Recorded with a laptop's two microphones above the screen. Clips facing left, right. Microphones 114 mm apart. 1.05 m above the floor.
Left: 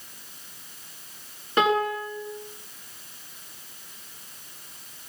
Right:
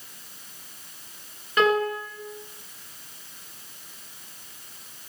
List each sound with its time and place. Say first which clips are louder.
1.6 s a piano: right 1 dB; 25° left (ahead or behind), 8.5 m